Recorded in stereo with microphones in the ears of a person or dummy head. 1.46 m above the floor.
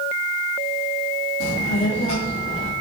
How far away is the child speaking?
About 1.1 m.